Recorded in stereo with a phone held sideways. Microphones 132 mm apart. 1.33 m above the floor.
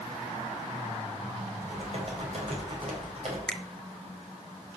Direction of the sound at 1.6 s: 50° right (ahead or behind).